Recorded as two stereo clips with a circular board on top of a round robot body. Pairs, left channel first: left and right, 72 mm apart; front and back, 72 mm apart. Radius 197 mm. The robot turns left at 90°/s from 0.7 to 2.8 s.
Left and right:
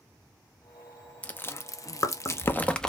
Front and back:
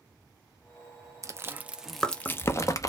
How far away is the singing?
I don't hear singing.